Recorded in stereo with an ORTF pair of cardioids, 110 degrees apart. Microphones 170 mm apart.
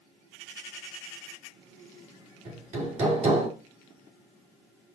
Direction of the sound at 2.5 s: 45° right.